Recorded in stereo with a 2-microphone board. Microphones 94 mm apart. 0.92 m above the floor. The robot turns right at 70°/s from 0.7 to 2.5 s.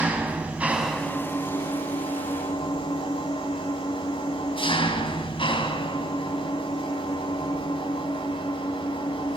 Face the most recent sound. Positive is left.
turn(degrees=110)